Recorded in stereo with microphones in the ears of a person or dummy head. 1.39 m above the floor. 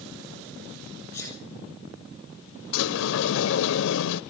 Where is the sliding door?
65° left (ahead or behind), 0.6 m.